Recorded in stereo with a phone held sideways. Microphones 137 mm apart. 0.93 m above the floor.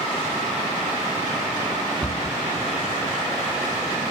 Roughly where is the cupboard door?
Centre.